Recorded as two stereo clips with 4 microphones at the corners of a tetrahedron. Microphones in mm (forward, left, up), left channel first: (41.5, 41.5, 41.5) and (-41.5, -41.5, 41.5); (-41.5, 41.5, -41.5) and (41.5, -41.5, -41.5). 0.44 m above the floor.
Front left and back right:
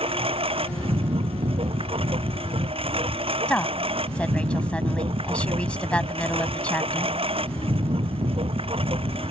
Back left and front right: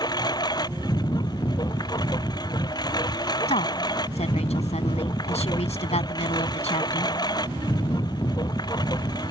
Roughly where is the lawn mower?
Behind.